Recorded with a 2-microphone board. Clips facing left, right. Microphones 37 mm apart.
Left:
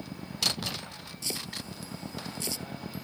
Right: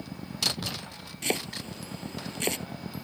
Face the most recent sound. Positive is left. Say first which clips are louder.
# right 7 dB
turn(degrees=-55)  # may be behind; listen again after turning